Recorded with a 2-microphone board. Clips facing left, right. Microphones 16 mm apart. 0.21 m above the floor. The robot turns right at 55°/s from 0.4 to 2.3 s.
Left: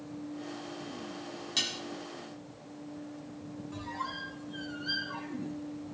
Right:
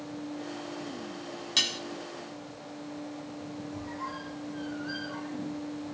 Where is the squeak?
65° left (ahead or behind), 2 m.